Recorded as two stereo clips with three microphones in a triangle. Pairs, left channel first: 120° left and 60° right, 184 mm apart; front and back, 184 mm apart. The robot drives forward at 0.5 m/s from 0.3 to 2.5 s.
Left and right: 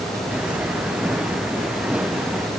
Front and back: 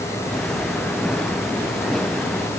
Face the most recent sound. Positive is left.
No sound to turn to.